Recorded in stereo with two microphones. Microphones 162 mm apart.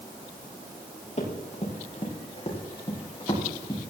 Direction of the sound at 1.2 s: 45° left (ahead or behind).